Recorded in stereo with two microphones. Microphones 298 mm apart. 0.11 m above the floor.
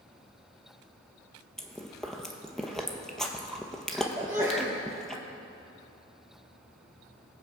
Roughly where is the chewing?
Centre.